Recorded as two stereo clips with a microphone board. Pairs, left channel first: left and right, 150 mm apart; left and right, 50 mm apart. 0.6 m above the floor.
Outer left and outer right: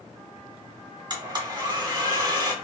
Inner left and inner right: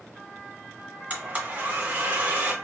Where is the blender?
30° right (ahead or behind), 0.7 m.